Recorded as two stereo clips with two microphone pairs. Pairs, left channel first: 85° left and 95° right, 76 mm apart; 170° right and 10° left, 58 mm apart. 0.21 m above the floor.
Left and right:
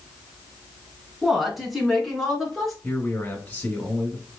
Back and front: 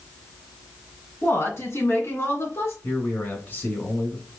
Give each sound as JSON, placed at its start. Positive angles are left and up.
{"t": 1.2, "sound": "a woman speaking", "azimuth_deg": 175, "distance_m": 2.0}
{"t": 2.8, "sound": "a man speaking", "azimuth_deg": 145, "distance_m": 2.0}